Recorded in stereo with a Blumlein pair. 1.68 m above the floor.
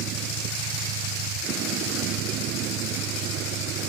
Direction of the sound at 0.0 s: 35° right.